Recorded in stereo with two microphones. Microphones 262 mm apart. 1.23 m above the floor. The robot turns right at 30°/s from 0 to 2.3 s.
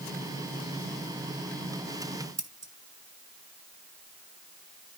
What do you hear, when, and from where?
2.4 s scissors: 75° right (ahead or behind), 1.1 m